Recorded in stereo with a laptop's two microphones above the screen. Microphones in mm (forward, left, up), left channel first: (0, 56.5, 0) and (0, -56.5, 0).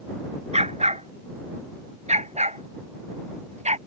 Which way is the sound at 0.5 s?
75° right (ahead or behind).